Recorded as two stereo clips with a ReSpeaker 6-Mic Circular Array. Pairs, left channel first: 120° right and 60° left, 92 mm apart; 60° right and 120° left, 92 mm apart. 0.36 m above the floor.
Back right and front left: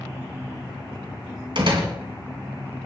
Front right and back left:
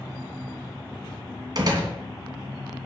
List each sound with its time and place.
1.6 s a door slam: 75° left, 3 m